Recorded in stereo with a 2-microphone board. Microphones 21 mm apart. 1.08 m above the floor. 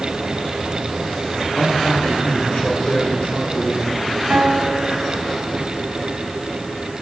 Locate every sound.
1.6 s a man speaking: 70° left (ahead or behind), 4 m
4.3 s a piano: 75° right (ahead or behind), 6.5 m